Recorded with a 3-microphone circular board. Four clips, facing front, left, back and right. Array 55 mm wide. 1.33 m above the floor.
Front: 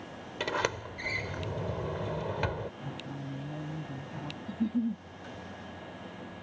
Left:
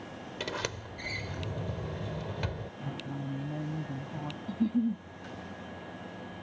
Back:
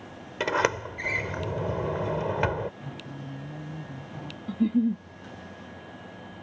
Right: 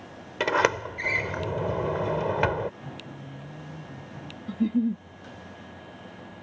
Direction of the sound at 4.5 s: 140° right.